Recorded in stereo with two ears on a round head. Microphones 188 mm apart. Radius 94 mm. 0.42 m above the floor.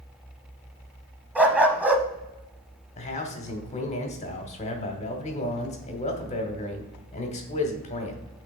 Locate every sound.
1.4 s a dog barking: 5° right (ahead or behind), 0.8 m
3.0 s a man speaking: 30° left (ahead or behind), 1.0 m